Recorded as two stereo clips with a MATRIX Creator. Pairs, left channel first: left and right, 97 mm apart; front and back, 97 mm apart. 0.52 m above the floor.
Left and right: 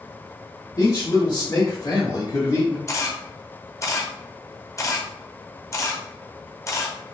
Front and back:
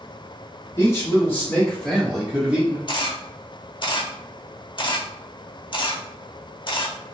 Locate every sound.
0.8 s a man speaking: 55° left, 2.0 m; by 2.8 s 135° left, 1.2 m
2.9 s a camera shutter: 35° left, 0.6 m